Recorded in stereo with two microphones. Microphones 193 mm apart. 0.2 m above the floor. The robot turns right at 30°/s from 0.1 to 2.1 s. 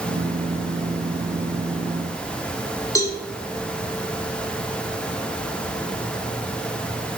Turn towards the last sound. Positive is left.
turn(degrees=15)  # may be behind; listen again after turning